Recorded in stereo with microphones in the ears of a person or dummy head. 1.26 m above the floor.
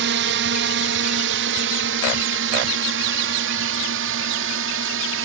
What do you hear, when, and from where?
0.0 s a drone: 65° right (ahead or behind); by 5.2 s 75° right (ahead or behind)